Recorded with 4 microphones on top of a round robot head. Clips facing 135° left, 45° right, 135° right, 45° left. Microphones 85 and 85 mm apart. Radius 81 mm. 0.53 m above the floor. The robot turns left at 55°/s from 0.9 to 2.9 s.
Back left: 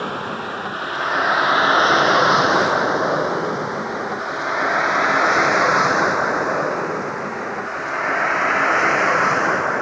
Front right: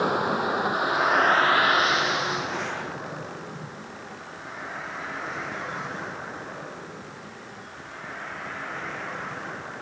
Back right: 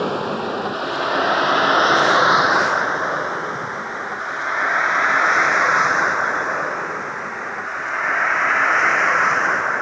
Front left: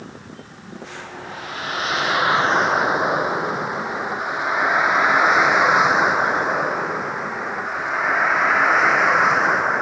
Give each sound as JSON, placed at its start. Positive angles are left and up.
{"t": 0.0, "sound": "a vehicle", "azimuth_deg": -125}